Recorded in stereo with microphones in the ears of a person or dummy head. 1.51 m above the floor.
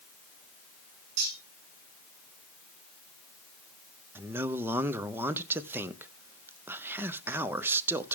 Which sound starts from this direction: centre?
A man speaking, at 4.2 s.